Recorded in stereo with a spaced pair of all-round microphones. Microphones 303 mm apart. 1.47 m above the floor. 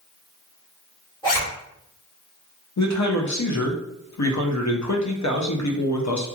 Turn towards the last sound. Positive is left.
turn(degrees=65)  # may be behind; listen again after turning